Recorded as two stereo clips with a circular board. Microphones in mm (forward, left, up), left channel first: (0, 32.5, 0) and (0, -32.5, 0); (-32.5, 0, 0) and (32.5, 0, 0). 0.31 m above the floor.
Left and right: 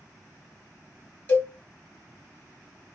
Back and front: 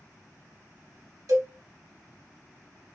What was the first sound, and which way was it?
A cowbell, 30° left.